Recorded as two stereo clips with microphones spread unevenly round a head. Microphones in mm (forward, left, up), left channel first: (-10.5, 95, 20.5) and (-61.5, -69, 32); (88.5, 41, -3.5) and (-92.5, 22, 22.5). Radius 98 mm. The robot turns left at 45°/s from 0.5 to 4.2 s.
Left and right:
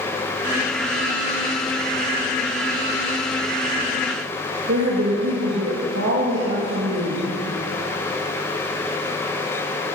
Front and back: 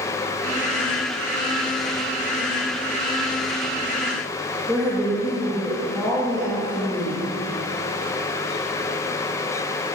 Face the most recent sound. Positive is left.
turn(degrees=-85)